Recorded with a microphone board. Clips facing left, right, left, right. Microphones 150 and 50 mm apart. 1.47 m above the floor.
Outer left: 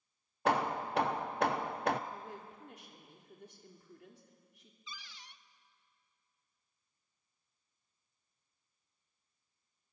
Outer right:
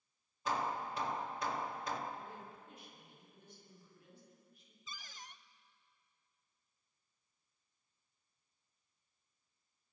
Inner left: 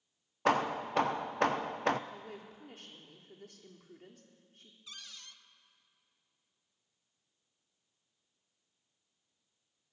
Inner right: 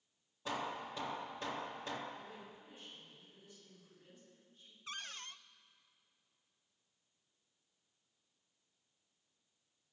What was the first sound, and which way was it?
Hammering, 65° left (ahead or behind).